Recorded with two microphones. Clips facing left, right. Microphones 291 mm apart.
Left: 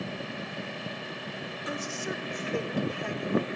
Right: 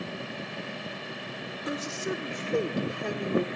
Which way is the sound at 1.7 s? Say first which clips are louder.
Right 4 dB; 50° right (ahead or behind).